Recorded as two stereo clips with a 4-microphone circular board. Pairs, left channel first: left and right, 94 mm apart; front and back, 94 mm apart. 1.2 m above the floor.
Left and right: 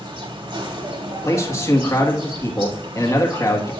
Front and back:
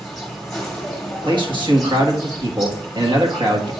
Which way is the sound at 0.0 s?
85° right.